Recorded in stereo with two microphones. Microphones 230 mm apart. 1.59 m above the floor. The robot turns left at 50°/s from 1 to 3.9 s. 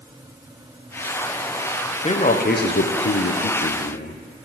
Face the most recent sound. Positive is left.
turn(degrees=55)